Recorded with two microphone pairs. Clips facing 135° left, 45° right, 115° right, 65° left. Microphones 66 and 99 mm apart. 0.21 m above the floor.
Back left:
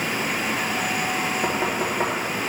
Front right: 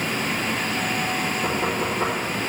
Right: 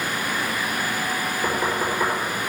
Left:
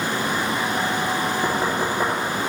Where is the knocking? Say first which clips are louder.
Even, left 1 dB; 120° left, 3 m.